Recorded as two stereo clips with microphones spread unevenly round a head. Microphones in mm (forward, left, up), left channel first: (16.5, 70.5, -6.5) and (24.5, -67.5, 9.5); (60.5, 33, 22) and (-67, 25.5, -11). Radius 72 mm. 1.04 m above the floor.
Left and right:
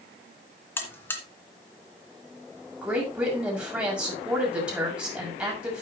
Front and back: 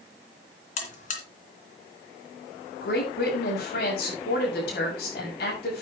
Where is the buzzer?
15° left, 2.5 m.